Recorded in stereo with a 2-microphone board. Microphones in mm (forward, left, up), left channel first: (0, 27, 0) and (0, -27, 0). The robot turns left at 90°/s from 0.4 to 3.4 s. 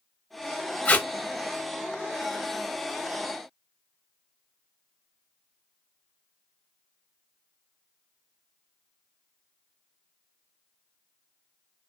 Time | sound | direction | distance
0.8 | tape being pulled | 25° left (ahead or behind) | 0.7 m